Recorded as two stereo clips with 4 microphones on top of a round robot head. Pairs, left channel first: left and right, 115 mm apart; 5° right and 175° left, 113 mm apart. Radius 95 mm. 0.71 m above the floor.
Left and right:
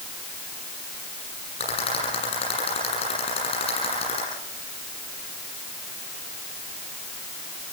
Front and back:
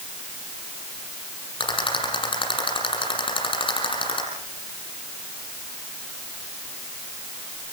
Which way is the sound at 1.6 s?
40° left.